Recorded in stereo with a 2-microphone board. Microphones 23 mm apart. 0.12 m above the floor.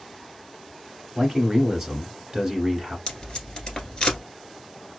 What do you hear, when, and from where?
1.1 s a man speaking: 20° right (ahead or behind), 1.4 m
3.1 s tape being pulled: 30° left (ahead or behind), 1.3 m